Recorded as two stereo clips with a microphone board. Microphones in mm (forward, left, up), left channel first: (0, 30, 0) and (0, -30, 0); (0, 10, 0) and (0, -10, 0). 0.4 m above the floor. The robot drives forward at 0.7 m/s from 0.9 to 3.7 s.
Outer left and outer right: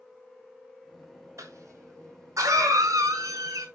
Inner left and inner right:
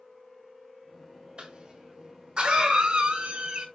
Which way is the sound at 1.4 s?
60° right (ahead or behind).